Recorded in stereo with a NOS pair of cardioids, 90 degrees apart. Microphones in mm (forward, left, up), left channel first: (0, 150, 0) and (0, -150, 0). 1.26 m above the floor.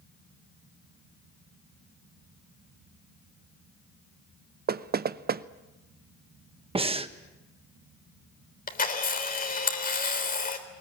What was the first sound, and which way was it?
Knocking, 30° right.